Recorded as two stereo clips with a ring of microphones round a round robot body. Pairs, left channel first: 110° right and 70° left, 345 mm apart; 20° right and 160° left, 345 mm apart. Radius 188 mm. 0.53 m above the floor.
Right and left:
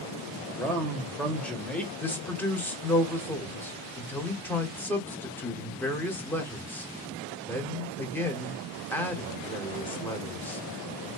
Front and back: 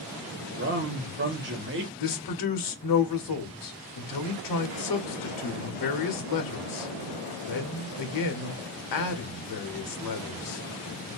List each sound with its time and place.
0.5 s a man speaking: 165° left, 1.2 m
2.0 s a man speaking: 30° right, 1.2 m